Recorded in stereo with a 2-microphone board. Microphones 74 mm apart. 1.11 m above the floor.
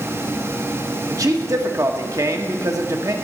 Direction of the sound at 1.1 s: 50° right (ahead or behind).